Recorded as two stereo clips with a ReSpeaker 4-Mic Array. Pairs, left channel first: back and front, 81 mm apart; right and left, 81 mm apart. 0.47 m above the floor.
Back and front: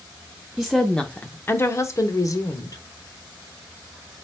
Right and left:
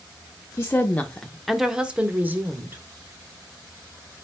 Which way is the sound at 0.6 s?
85° right.